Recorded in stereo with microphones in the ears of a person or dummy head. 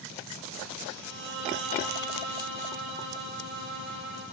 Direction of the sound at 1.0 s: 70° right (ahead or behind).